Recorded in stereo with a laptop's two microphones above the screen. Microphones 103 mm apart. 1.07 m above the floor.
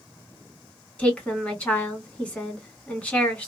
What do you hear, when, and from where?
1.0 s a woman speaking: 10° left (ahead or behind), 1.7 m